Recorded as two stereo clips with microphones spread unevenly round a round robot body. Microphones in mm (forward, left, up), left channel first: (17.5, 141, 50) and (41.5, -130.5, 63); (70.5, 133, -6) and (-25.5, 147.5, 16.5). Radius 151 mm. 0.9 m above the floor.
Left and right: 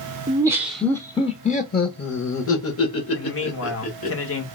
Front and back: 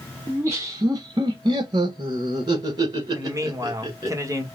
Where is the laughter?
130° right, 0.8 m; by 4.1 s 115° left, 2.0 m.